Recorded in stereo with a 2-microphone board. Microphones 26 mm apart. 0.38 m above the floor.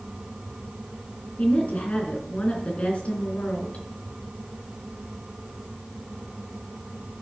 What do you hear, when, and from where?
1.4 s a woman speaking: 50° left (ahead or behind), 3.5 m